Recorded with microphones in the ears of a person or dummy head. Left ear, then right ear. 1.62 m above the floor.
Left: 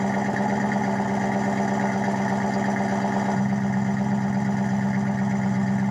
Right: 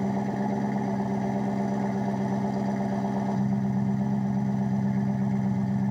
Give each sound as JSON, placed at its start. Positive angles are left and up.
{"t": 0.0, "sound": "an engine running", "side_deg": 60, "distance_m": 1.5}